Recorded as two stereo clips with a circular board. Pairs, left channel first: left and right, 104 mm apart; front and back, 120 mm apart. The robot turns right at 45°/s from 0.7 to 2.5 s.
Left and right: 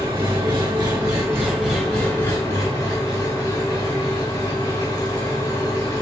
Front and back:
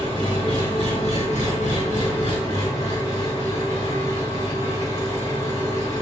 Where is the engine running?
50° right, 1.6 m; by 6.0 s 35° left, 1.6 m.